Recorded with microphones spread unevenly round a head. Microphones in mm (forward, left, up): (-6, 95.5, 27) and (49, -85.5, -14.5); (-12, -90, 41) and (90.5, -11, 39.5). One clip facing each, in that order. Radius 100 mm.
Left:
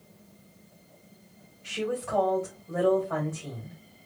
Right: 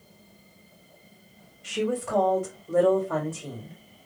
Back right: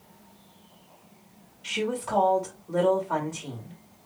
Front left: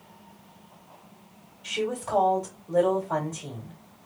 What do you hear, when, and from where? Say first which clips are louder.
1.6 s a woman speaking: right 3 dB, even; 50° right, 1.6 m